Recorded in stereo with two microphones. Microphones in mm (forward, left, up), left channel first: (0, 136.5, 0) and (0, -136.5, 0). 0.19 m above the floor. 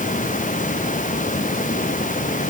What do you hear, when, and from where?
Only background noise.